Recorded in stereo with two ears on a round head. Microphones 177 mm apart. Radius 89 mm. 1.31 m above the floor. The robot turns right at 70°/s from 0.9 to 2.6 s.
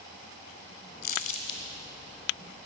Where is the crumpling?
50° left (ahead or behind), 1.7 m; by 1.6 s 25° left (ahead or behind), 1.7 m.